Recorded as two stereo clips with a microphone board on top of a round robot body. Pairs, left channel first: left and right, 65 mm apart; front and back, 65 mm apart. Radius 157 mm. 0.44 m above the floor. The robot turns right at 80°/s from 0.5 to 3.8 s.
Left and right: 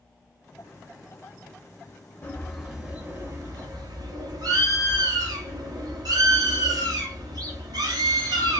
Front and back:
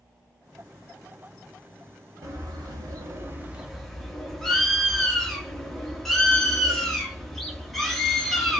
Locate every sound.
2.2 s a bird: 145° left, 0.8 m; by 8.6 s 85° right, 0.8 m